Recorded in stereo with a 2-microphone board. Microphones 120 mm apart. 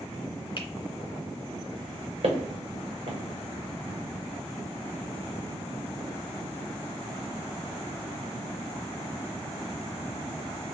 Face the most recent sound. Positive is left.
turn(degrees=-65)  # may be behind; listen again after turning